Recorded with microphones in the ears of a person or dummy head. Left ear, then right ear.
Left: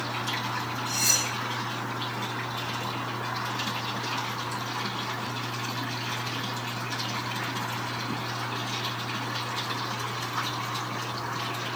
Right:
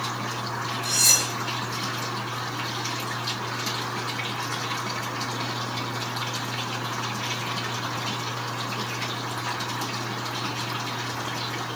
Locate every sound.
0.8 s cutlery clinking: 65° right (ahead or behind), 1.6 m